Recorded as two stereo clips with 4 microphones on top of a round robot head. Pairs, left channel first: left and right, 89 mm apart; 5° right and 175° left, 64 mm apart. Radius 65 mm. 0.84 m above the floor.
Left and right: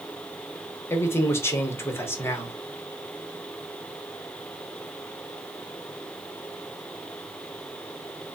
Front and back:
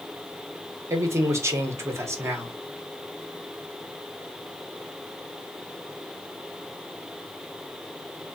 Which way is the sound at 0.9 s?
145° left.